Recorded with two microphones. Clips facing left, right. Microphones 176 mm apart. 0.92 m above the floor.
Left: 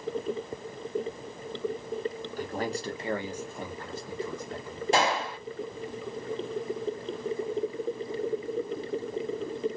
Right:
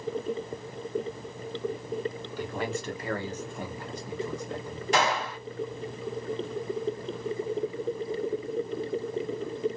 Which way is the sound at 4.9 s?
30° left (ahead or behind).